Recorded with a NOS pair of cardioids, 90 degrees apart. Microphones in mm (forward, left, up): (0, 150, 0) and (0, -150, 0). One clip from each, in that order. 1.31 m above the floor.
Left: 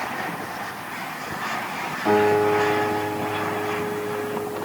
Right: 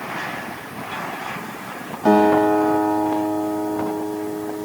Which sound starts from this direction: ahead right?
A guitar, at 2.0 s.